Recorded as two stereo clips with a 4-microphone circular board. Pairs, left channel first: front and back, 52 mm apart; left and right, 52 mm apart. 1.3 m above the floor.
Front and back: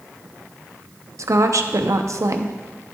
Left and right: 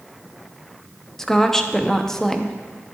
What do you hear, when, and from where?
1.2 s a woman speaking: 175° left, 0.6 m